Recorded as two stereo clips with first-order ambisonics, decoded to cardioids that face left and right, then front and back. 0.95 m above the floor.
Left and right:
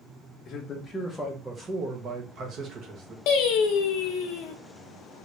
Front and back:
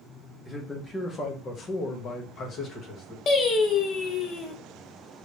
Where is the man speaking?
85° left, 0.7 m; by 3.2 s 50° right, 1.3 m.